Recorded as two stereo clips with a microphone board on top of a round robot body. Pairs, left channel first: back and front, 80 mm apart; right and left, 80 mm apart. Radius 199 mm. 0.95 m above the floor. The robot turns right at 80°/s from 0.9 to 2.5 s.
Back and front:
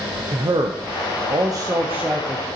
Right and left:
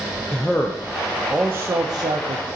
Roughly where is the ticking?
No ticking in this recording.